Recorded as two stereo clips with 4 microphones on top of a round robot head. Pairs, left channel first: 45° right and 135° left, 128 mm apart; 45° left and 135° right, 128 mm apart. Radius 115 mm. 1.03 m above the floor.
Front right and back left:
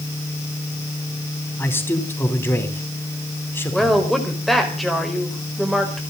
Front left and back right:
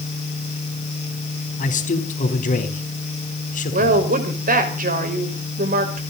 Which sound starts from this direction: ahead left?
A man speaking, at 1.6 s.